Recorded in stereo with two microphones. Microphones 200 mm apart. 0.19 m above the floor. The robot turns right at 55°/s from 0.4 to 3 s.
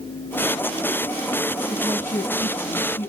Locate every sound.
1.7 s a woman speaking: 55° left, 2.5 m; by 3.1 s 130° left, 2.5 m